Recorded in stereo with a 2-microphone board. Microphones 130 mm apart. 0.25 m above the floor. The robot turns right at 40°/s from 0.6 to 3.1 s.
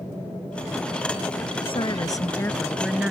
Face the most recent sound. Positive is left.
turn(degrees=-170)